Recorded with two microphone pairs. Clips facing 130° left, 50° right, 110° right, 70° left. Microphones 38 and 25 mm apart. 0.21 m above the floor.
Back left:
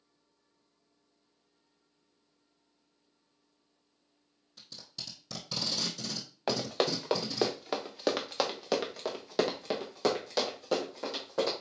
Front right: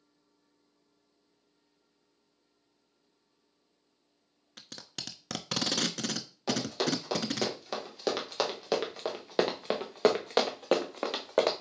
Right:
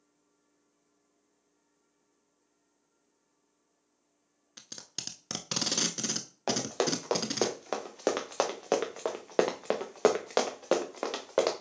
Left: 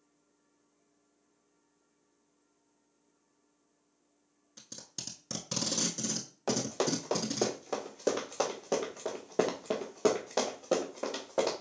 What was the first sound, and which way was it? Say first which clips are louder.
Tape being pulled: front right 3 dB, right 3 dB; 65° right.